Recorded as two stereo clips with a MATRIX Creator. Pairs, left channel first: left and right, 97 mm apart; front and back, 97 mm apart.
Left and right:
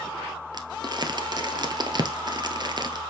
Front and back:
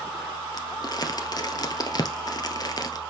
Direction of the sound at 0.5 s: 45° right.